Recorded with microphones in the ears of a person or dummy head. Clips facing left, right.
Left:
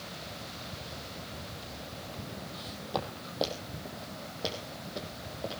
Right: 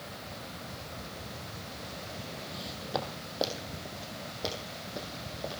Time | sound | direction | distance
2.5 | footsteps | 5° right (ahead or behind) | 3 m